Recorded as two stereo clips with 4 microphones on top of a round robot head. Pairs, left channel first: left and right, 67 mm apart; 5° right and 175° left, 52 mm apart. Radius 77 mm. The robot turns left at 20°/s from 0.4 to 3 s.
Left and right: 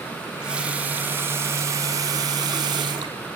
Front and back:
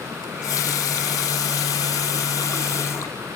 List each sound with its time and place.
0.2 s a running tap: 10° right, 1.2 m; by 3.2 s 60° right, 1.2 m